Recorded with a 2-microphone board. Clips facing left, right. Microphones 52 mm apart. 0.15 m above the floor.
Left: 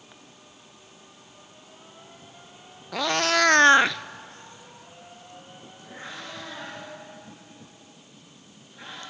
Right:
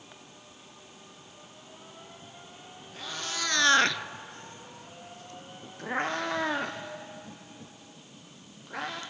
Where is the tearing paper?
No tearing paper in this recording.